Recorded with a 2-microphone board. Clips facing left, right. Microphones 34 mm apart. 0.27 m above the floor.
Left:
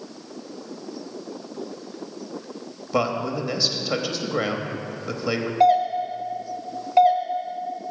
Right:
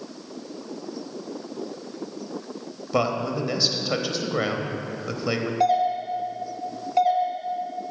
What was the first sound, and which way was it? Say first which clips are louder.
A man speaking: even; centre (ahead or behind).